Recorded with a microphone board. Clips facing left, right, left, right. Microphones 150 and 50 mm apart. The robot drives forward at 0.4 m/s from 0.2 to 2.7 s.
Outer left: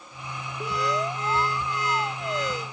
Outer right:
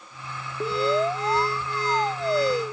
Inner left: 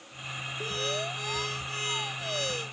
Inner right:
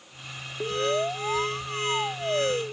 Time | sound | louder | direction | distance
0.6 | an alarm | outer right 5 dB, inner right 8 dB | 30° right (ahead or behind) | ?